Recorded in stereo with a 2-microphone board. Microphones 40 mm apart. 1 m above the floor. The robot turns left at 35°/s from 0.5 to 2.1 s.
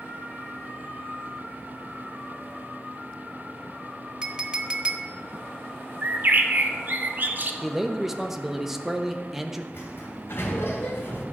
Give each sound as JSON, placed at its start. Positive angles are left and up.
{"t": 4.2, "sound": "a clink", "side_deg": -25, "distance_m": 0.7}
{"t": 6.0, "sound": "a bird", "side_deg": -45, "distance_m": 0.9}
{"t": 7.6, "sound": "a man speaking", "side_deg": -5, "distance_m": 1.0}
{"t": 9.7, "sound": "a sliding door", "side_deg": 65, "distance_m": 2.5}